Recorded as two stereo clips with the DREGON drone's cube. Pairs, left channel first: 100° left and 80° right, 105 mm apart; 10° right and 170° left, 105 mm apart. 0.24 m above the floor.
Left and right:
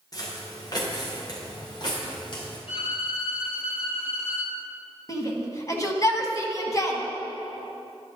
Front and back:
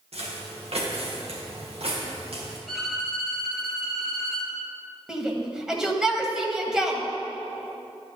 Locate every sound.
0.1 s footsteps: 155° left, 3 m; by 2.6 s 145° left, 4.5 m
2.7 s a violin: 80° left, 2 m
5.1 s a shout: 90° left, 1.4 m